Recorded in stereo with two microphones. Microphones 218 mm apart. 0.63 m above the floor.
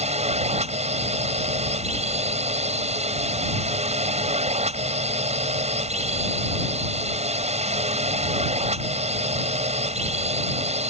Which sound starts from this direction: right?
A drone, at 0.0 s.